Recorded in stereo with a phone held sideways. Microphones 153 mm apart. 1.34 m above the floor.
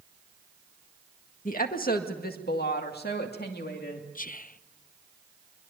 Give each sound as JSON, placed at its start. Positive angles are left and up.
{"t": 1.4, "sound": "a woman speaking", "side_deg": 55, "distance_m": 1.8}
{"t": 4.2, "sound": "whispering", "side_deg": 55, "distance_m": 0.6}